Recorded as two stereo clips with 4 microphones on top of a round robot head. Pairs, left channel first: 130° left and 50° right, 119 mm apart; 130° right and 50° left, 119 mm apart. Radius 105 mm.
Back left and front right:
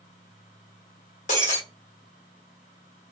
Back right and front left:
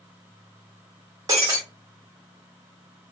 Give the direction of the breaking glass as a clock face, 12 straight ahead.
8 o'clock.